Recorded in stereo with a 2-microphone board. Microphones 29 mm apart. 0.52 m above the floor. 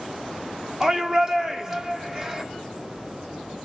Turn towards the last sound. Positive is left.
turn(degrees=-20)  # may be behind; listen again after turning